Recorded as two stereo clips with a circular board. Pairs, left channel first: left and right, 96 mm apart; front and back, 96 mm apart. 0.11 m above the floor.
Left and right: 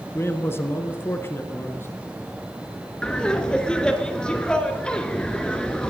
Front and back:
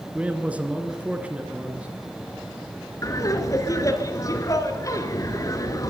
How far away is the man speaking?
About 1.3 m.